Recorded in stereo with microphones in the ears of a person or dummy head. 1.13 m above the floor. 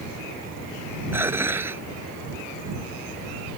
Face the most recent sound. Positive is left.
turn(degrees=-15)  # may be behind; listen again after turning